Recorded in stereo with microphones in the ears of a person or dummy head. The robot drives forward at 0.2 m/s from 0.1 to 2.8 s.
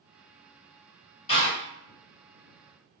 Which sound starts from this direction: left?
A door slam, at 1.3 s.